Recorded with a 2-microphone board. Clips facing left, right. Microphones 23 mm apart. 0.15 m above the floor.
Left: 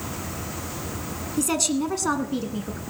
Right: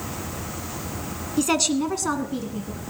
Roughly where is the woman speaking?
Right.